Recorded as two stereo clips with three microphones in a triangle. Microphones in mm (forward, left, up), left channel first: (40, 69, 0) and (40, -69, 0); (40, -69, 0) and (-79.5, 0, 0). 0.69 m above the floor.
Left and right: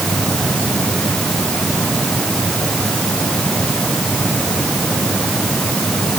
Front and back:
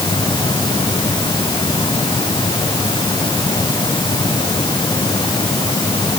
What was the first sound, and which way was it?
Only background noise.